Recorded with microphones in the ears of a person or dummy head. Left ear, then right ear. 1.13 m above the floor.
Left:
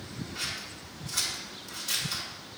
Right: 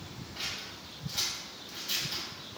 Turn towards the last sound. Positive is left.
turn(degrees=35)  # may be behind; listen again after turning